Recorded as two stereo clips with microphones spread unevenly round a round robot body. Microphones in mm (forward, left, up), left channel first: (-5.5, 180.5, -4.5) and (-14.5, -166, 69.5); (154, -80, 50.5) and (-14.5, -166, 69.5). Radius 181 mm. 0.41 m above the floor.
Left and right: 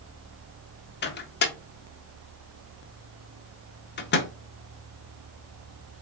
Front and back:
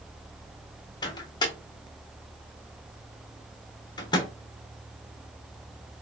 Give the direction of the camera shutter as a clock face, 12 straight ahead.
I don't hear a camera shutter.